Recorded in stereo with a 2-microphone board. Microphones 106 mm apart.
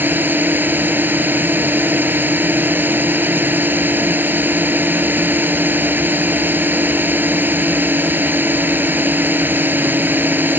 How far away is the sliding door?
I don't hear a sliding door.